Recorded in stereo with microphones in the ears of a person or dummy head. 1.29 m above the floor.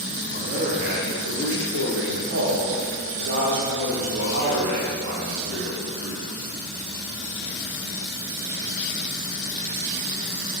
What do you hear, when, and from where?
0.3 s a man speaking: 45° right (ahead or behind), 2 m; by 6.2 s 30° right (ahead or behind), 3 m